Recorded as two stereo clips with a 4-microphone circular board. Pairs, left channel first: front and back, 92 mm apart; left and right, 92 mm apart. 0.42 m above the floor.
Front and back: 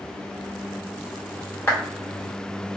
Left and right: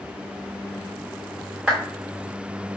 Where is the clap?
25° right, 1.2 m.